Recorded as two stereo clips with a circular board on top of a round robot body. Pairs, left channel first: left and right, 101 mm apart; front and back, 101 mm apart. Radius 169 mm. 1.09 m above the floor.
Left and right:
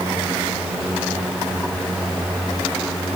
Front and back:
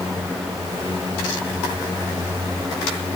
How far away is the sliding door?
I don't hear a sliding door.